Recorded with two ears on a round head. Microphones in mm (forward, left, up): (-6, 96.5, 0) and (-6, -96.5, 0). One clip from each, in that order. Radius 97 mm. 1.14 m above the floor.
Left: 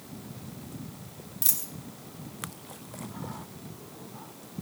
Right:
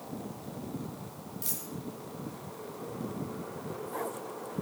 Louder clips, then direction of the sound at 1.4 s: Left 7 dB; 25° left (ahead or behind).